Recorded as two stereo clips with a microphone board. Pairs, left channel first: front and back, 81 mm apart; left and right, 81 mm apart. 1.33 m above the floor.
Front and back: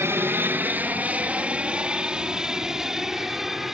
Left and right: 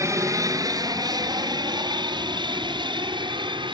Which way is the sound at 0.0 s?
130° right.